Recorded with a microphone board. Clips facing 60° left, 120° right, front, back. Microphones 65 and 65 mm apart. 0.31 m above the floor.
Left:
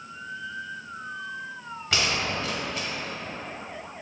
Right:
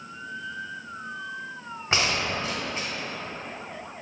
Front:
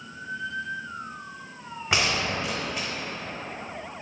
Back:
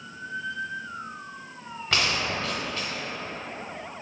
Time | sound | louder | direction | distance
1.9 | a gunshot | right 1 dB, front 1 dB | 65° right | 0.7 m